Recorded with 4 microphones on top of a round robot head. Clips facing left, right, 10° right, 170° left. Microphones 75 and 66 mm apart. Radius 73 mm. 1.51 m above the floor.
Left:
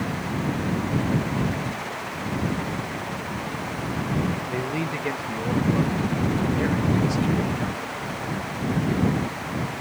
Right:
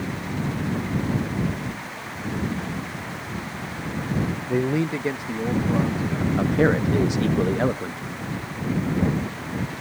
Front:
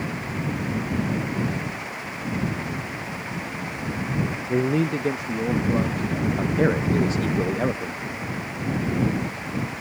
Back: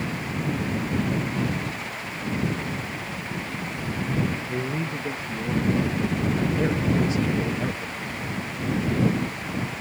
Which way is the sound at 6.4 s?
50° right.